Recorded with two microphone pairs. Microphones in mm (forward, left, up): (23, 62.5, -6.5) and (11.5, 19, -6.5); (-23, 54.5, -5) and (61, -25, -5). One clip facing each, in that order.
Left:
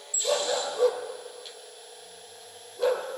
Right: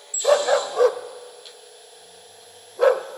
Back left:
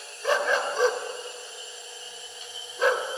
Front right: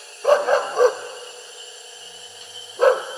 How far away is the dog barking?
About 0.9 m.